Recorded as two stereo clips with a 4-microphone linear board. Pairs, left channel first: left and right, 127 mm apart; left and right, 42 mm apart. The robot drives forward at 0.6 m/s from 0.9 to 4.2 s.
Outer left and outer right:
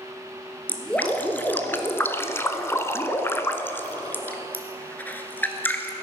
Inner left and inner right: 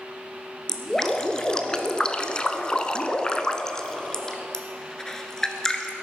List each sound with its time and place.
0.7 s dripping: 15° left (ahead or behind), 1.4 m